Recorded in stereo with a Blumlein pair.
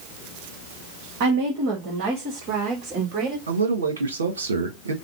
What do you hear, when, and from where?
1.2 s a woman speaking: 45° right, 1.3 m; by 3.4 s 40° right, 2.5 m
3.5 s a man speaking: 70° right, 1.4 m